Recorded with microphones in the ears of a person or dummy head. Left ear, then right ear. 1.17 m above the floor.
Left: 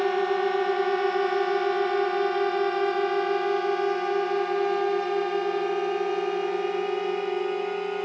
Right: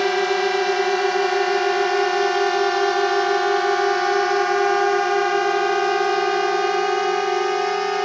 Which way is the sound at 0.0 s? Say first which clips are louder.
Right 5 dB; 70° right (ahead or behind).